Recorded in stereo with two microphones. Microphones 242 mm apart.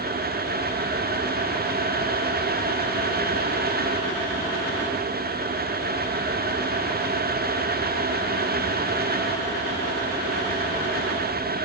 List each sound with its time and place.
Only background noise.